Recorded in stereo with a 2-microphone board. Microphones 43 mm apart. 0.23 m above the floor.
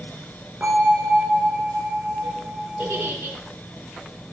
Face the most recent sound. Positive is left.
turn(degrees=-65)  # may be behind; listen again after turning